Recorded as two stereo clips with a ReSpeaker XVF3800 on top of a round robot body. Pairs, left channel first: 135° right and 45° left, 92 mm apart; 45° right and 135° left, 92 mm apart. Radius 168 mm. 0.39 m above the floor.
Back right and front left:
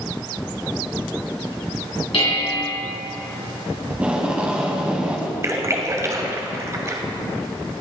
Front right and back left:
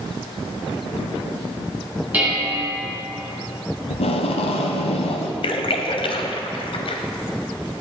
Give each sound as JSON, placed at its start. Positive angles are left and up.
{"t": 2.1, "sound": "dishes clattering", "azimuth_deg": -150, "distance_m": 3.5}
{"t": 3.9, "sound": "tape being pulled", "azimuth_deg": -35, "distance_m": 0.6}
{"t": 5.4, "sound": "a splash", "azimuth_deg": -15, "distance_m": 0.7}